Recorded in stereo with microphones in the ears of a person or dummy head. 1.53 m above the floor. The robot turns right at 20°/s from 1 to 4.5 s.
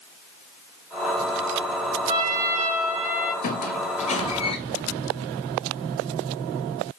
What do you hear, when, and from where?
2.1 s a trumpet: 25° right (ahead or behind), 3.5 m; by 3.3 s centre (ahead or behind), 3.5 m
3.4 s a squeak: 45° left (ahead or behind), 2.5 m; by 4.6 s 30° left (ahead or behind), 2.5 m